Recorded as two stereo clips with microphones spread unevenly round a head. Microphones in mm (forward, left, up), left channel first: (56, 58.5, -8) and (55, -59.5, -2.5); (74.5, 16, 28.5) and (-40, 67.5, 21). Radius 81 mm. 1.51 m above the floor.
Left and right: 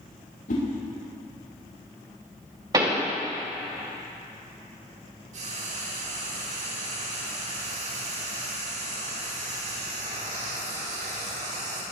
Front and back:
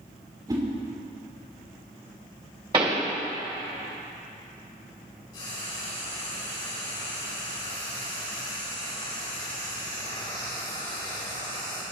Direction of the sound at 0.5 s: 95° left.